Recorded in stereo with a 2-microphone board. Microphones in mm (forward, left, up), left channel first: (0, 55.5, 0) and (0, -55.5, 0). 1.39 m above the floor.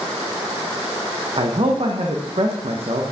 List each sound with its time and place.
1.4 s a man speaking: 55° right (ahead or behind), 1.2 m